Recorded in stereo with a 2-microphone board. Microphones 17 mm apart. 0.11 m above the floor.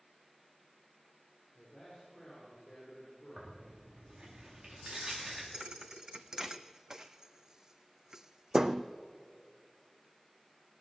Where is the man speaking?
40° left (ahead or behind), 6 m; by 3.5 s 35° left (ahead or behind), 8 m.